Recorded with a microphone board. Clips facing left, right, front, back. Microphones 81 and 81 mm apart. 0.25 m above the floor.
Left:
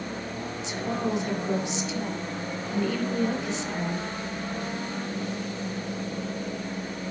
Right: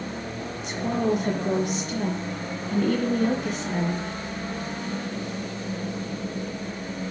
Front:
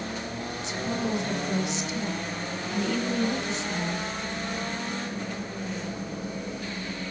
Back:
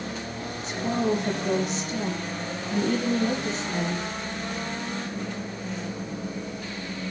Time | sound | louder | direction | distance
0.6 | a woman speaking | right 5 dB, back 5 dB | 135° right | 5 m